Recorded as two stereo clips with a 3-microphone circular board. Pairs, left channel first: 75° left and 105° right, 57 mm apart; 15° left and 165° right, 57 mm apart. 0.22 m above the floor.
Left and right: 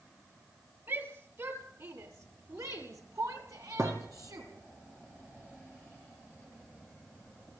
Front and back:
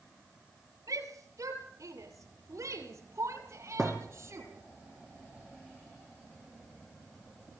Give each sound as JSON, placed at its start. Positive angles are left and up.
{"t": 0.9, "sound": "a shout", "azimuth_deg": -150, "distance_m": 5.0}
{"t": 3.8, "sound": "a thud", "azimuth_deg": -70, "distance_m": 5.5}